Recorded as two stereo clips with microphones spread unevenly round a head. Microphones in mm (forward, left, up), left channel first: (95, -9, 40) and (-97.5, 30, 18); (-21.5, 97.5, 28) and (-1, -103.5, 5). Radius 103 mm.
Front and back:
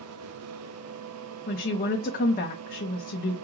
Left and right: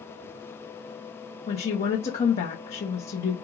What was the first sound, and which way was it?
A woman speaking, 35° left.